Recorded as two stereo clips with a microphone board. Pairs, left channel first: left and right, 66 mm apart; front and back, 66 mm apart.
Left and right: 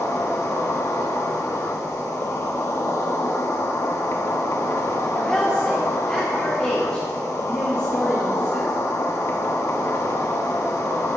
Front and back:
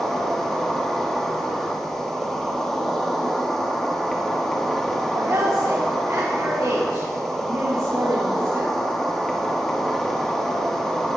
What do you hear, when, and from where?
0.0 s an insect: 80° left, 2 m
5.1 s a woman speaking: 165° left, 2.5 m